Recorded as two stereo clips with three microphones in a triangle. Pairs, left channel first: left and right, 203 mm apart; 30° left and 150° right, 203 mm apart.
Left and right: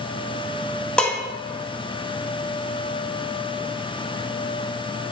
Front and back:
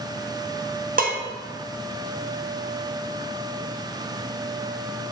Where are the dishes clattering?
175° left, 1.0 m.